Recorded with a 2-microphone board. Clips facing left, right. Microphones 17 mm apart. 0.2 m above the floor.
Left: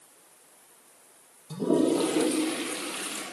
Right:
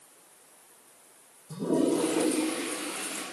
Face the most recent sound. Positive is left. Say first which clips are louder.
# left 2 dB
turn(degrees=65)  # may be behind; listen again after turning